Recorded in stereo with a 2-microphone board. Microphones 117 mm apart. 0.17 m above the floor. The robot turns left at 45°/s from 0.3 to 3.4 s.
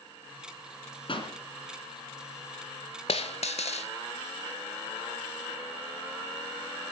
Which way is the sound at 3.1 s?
55° left (ahead or behind).